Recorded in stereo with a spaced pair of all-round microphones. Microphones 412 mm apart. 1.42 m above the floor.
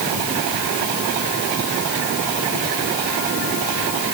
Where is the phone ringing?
I don't hear a phone ringing.